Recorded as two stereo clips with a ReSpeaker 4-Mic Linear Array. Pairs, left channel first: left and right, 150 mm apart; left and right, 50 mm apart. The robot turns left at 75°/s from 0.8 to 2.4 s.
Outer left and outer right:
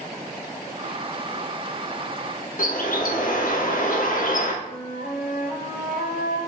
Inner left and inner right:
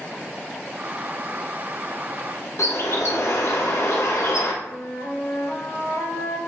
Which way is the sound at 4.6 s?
75° left (ahead or behind).